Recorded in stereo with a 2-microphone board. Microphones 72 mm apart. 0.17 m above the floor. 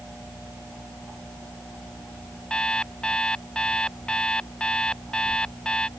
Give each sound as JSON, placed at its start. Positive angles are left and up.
{"t": 2.5, "sound": "an alarm clock", "side_deg": 10}